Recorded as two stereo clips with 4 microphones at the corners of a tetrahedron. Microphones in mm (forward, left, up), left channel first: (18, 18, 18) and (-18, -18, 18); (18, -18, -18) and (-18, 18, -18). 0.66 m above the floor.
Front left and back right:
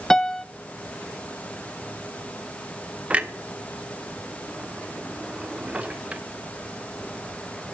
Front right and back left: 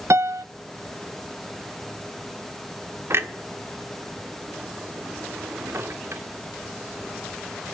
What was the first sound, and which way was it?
A piano, 125° left.